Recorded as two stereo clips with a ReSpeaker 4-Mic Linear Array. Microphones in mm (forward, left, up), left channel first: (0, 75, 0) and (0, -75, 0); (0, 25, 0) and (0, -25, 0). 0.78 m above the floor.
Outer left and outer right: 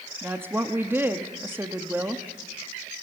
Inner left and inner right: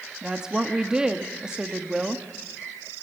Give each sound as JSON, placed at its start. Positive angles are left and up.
{"t": 0.2, "sound": "a woman speaking", "side_deg": -15, "distance_m": 1.2}